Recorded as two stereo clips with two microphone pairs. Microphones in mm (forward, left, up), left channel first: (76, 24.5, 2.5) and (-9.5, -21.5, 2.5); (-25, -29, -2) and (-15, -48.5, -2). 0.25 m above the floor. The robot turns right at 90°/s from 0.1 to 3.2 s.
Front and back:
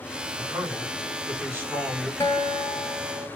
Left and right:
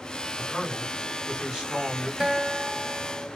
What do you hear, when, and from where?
0.4 s a man speaking: 160° left, 1.5 m; by 2.1 s 45° right, 1.5 m
2.2 s a guitar: 5° right, 0.9 m; by 3.3 s 85° left, 0.9 m